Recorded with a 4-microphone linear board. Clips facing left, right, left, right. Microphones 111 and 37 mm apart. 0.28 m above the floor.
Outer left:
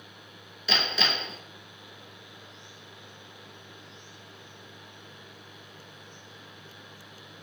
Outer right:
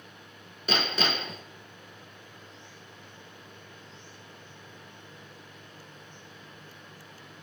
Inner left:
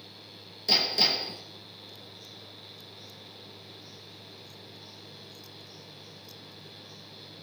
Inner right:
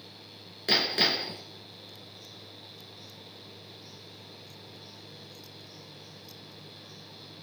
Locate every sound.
0.7 s hammering: 45° right (ahead or behind), 1.4 m